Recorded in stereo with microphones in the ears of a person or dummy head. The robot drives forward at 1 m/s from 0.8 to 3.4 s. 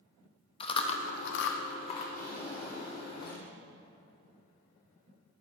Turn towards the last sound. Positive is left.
turn(degrees=35)  # may be behind; listen again after turning